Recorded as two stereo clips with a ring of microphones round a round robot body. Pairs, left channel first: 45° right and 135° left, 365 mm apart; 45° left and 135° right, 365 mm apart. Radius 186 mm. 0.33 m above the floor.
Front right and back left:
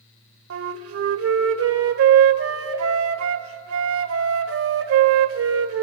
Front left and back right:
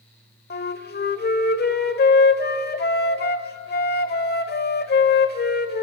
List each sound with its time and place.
0.5 s a flute: 100° left, 1.0 m